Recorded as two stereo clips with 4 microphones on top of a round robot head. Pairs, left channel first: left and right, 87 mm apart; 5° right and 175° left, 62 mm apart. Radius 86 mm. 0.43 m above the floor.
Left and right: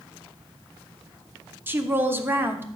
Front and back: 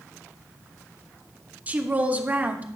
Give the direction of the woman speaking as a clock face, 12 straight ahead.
5 o'clock.